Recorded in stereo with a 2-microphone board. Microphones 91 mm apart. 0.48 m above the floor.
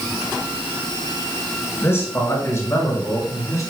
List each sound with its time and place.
1.8 s a man speaking: 30° left (ahead or behind), 5.5 m; by 3.7 s 35° left (ahead or behind), 5 m